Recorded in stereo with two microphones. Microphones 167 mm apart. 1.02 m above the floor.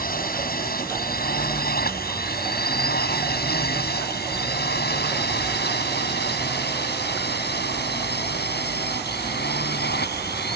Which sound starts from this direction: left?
A drone, at 0.0 s.